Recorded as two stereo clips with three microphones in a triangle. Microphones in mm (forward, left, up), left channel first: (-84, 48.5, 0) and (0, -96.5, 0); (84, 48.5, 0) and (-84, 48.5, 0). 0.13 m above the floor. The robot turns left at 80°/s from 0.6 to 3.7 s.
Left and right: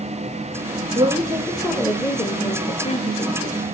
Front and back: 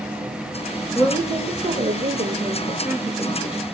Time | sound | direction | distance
0.9 | a woman speaking | 95° right | 2.0 m